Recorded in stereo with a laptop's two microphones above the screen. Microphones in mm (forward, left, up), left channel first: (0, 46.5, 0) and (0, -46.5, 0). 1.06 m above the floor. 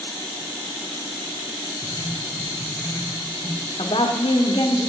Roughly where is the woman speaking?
Left.